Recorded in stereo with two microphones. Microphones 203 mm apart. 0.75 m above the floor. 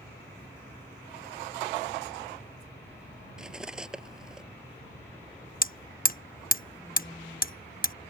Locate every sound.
3.4 s cutlery clinking: 5° right (ahead or behind)
5.6 s hammering: 45° left (ahead or behind)